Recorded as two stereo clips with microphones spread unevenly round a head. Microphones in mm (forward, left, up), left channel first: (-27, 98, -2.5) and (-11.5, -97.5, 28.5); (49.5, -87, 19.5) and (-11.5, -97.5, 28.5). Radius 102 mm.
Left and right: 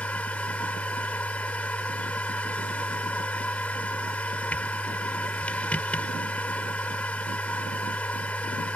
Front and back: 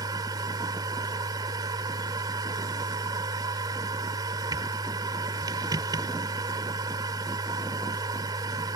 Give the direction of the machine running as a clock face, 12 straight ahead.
6 o'clock.